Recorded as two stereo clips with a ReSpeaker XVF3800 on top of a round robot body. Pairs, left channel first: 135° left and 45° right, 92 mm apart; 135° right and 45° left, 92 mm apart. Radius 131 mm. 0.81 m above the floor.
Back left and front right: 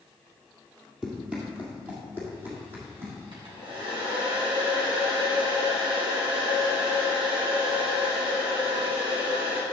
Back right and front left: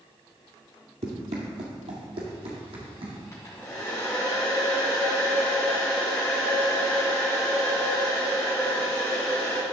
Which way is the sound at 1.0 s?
40° left.